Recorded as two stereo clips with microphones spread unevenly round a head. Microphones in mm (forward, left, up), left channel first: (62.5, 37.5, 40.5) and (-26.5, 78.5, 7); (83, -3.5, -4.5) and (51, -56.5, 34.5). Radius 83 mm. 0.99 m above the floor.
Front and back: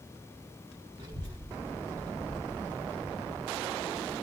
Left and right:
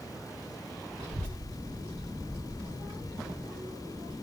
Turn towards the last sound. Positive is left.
turn(degrees=-150)